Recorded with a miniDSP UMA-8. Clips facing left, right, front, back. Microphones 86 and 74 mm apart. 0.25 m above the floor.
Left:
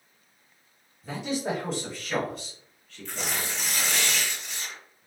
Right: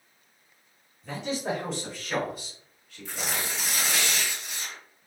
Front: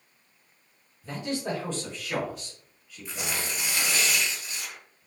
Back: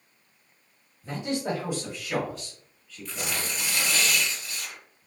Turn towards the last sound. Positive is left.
turn(degrees=-20)